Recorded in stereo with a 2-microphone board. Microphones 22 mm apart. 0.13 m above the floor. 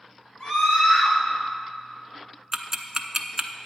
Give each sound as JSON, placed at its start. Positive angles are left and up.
{"t": 0.4, "sound": "a scream", "side_deg": 55, "distance_m": 2.5}
{"t": 2.5, "sound": "ticking", "side_deg": -25, "distance_m": 0.7}